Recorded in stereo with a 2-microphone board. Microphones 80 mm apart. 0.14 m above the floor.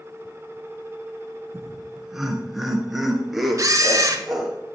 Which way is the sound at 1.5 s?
5° right (ahead or behind).